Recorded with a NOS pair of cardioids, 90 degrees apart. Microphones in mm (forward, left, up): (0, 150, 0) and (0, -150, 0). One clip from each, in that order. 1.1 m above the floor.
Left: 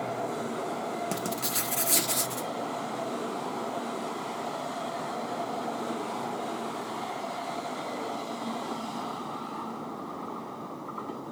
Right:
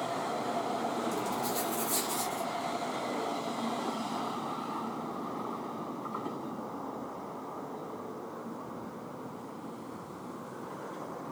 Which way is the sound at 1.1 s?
70° left.